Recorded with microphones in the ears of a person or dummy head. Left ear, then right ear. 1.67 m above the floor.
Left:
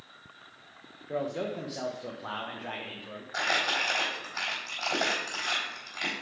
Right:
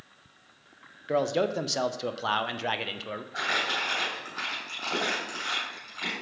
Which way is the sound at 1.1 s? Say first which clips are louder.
Right 7 dB; 80° right.